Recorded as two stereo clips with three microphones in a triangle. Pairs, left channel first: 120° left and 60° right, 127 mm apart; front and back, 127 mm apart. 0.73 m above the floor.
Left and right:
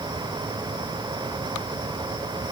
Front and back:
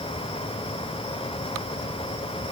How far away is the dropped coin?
No dropped coin in this recording.